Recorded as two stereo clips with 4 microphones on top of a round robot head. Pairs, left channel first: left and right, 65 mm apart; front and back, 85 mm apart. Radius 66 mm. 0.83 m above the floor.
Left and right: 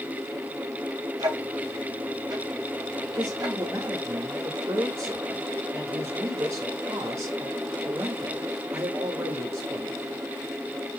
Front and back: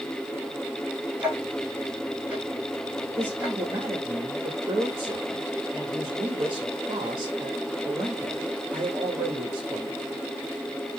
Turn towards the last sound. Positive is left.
turn(degrees=-135)